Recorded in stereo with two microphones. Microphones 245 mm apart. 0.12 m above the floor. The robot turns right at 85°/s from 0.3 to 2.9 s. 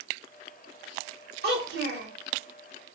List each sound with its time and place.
1.4 s a child speaking: 120° right, 1.1 m; by 2.1 s 65° right, 1.1 m